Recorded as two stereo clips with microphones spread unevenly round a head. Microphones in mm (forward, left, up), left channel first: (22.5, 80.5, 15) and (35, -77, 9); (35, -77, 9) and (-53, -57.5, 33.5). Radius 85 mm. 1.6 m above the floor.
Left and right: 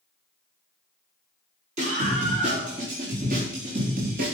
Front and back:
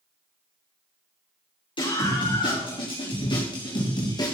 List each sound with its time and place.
1.8 s a scream: 40° right, 6 m; by 4.3 s 55° right, 3 m